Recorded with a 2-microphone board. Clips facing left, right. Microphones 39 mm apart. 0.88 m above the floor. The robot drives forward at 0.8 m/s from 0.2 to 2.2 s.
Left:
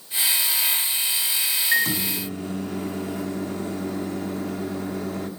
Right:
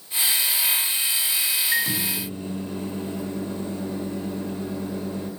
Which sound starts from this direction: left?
A microwave, at 1.7 s.